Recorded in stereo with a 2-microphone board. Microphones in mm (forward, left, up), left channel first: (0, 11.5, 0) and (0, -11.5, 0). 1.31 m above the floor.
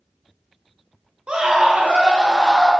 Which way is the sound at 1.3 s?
45° right (ahead or behind).